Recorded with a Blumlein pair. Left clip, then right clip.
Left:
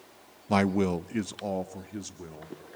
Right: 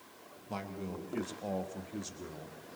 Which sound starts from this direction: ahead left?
A man speaking, at 0.5 s.